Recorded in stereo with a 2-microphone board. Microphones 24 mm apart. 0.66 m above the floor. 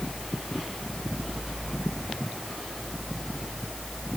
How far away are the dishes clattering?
I don't hear dishes clattering.